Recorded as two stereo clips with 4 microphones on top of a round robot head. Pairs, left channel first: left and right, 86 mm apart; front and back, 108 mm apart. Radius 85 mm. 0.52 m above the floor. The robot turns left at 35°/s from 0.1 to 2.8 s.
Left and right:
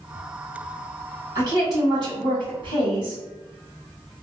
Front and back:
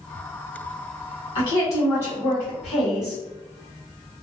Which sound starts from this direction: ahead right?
A woman speaking, at 1.4 s.